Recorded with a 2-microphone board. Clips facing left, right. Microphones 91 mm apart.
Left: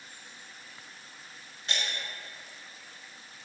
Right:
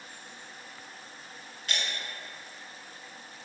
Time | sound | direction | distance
1.7 | breaking glass | 30° left (ahead or behind) | 1.1 m